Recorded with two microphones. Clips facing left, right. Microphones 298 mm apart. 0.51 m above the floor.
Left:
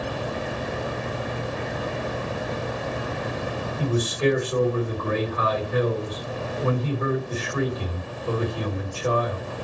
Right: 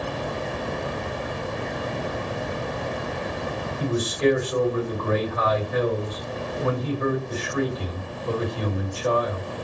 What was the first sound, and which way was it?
A man speaking, 35° left (ahead or behind).